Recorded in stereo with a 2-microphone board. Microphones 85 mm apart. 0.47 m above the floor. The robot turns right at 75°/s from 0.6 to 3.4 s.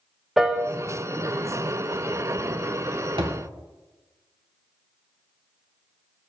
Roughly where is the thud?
Right.